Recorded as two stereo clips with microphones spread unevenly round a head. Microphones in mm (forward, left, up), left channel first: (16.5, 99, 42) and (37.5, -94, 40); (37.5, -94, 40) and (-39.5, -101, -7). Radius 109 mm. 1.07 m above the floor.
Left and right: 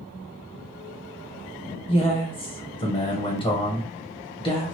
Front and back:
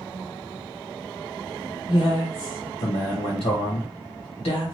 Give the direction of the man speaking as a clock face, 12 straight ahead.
11 o'clock.